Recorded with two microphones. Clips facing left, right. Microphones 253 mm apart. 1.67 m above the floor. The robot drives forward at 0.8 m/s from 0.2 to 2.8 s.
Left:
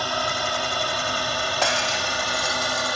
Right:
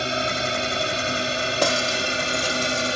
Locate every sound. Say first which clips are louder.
0.0 s a drone: right 3 dB; 25° right (ahead or behind)
1.6 s breaking glass: right 5 dB; 45° right (ahead or behind); by 3.0 s 35° right (ahead or behind)